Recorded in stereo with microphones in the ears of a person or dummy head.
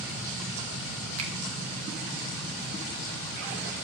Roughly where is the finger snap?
Right.